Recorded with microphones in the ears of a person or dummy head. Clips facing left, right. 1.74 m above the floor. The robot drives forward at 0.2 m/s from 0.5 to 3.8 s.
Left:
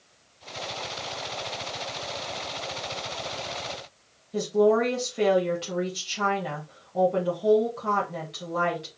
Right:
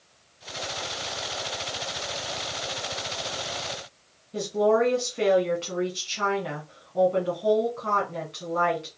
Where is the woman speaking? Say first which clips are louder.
Left 1 dB; 20° left (ahead or behind), 1.7 m.